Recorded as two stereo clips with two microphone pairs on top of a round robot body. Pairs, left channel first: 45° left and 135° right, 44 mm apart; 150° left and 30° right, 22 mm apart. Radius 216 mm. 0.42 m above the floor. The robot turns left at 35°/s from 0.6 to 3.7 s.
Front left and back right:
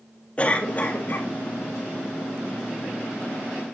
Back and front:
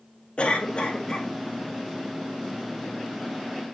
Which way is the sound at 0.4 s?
110° left.